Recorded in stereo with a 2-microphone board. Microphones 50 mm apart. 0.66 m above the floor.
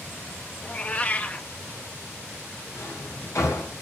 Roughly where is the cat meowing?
Left.